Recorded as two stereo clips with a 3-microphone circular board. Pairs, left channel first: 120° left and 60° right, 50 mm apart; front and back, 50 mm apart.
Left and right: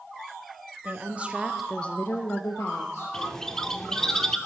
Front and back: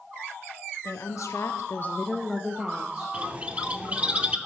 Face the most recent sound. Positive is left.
turn(degrees=-175)